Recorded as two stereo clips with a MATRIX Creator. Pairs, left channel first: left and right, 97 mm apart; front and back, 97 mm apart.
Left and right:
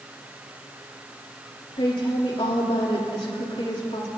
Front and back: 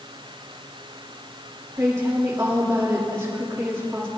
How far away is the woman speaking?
About 3 m.